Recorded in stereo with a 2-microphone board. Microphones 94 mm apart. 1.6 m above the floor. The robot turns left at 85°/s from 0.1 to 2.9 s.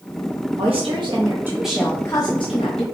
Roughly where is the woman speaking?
Right.